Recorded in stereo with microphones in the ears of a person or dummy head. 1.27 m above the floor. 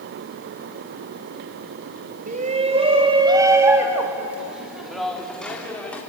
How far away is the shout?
About 1.7 m.